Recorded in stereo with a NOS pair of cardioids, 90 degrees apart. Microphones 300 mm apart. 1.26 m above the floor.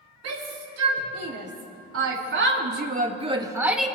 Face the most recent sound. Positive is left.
turn(degrees=5)